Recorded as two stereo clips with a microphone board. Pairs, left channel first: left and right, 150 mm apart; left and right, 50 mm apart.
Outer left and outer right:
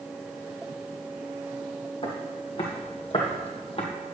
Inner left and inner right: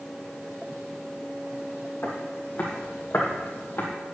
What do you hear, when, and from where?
2.0 s footsteps: 40° left (ahead or behind), 2.5 m